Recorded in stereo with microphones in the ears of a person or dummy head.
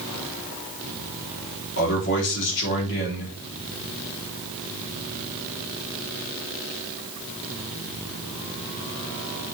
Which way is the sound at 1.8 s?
65° left (ahead or behind).